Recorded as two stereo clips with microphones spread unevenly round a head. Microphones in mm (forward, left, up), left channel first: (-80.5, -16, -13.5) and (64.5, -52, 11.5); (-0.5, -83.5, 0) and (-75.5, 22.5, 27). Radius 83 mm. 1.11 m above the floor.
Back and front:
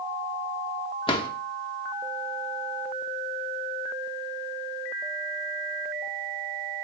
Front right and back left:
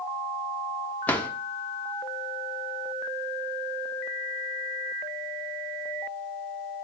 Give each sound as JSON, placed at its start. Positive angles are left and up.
{"t": 1.1, "sound": "a drawer", "azimuth_deg": -140, "distance_m": 1.0}